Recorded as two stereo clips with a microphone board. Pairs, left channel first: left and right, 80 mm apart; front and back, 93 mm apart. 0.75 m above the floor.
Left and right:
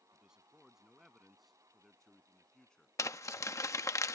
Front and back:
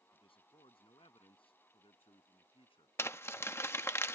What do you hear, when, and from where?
0.1 s a man speaking: 10° right; by 2.9 s 10° left
3.0 s crumpling: 55° left